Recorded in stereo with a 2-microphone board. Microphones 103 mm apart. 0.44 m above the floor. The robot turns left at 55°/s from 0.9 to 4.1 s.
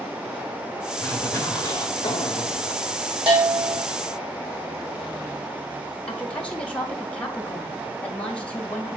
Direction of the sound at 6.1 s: 10° left (ahead or behind).